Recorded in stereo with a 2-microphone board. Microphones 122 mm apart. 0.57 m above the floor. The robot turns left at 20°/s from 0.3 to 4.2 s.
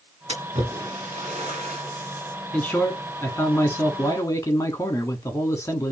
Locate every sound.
0.3 s a splash: 60° right (ahead or behind), 2 m; by 2.4 s 75° right (ahead or behind), 2 m
2.5 s a man speaking: 10° left (ahead or behind), 1.4 m; by 5.9 s 25° left (ahead or behind), 1.4 m